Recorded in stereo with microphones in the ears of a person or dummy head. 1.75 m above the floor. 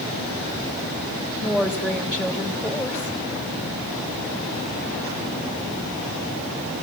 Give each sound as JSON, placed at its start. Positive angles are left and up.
{"t": 1.4, "sound": "a woman speaking", "side_deg": -5, "distance_m": 2.0}